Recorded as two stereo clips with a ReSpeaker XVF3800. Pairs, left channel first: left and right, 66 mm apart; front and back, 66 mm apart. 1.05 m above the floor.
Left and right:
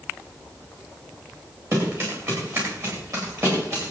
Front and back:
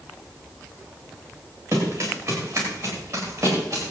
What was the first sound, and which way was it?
Running footsteps, 130° right.